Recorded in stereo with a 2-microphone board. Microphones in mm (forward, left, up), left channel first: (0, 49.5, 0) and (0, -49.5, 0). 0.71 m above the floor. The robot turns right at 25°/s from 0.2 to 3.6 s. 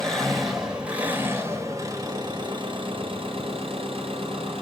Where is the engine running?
175° left, 2.5 m; by 4.6 s 100° right, 2.5 m.